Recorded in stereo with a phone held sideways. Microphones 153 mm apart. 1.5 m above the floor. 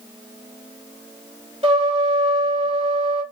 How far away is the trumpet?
About 2 m.